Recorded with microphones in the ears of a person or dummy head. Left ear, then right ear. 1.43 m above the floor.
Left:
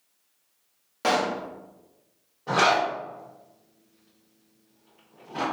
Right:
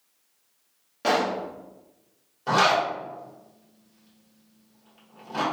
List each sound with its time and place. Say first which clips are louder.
1.0 s a pop: right 1 dB; 25° left (ahead or behind), 0.6 m
2.5 s a zipper: right 1 dB; 75° right (ahead or behind), 1.5 m